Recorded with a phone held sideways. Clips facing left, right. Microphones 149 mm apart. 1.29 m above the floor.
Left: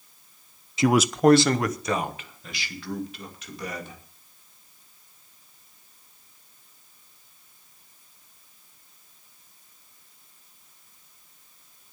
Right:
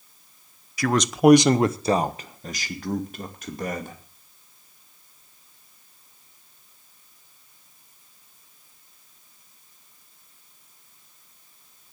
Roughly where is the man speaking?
Left.